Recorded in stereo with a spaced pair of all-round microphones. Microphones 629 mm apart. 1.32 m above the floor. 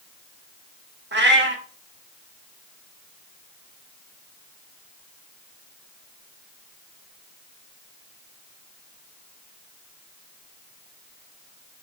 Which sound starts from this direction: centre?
A cat meowing, at 1.1 s.